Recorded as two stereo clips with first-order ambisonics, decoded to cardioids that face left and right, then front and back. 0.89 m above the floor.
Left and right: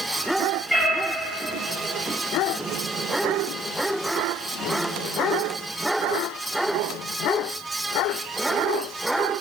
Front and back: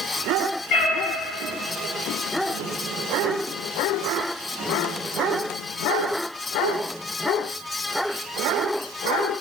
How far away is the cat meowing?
About 1.1 m.